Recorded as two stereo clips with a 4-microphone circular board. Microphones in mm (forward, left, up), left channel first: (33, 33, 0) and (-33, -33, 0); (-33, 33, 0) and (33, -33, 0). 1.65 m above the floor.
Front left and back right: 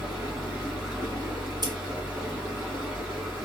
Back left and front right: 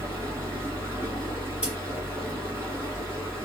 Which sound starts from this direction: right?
Running water, at 0.0 s.